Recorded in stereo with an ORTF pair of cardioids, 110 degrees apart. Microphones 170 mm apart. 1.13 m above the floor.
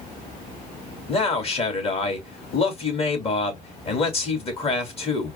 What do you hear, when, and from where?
1.1 s a man speaking: 35° left, 2.5 m